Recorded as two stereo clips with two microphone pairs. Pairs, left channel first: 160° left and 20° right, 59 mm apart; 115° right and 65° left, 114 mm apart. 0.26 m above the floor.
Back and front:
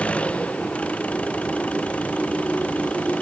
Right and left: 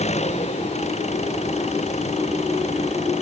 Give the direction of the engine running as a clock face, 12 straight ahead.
4 o'clock.